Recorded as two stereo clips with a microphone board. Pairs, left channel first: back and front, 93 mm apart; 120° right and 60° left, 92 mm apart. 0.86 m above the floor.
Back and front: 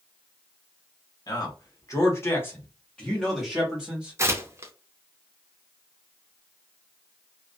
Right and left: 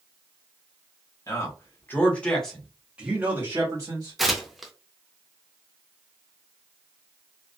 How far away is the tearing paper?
About 0.5 m.